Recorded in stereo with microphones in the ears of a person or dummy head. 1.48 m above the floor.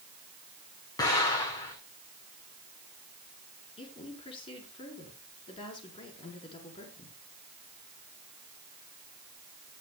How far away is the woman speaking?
About 4.5 m.